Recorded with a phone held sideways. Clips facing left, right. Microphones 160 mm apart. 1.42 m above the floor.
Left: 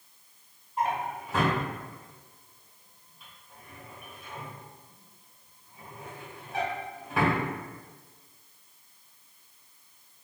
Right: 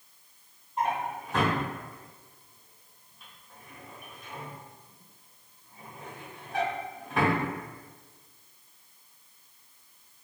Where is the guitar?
I don't hear a guitar.